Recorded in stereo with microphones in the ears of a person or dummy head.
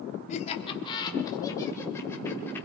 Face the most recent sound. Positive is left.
turn(degrees=10)  # may be behind; listen again after turning